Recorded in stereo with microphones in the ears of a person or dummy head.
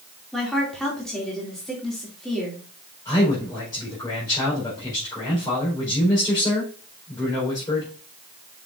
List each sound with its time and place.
0.3 s a woman speaking: 5° left (ahead or behind), 2.5 m
3.0 s a man speaking: 20° left (ahead or behind), 4.5 m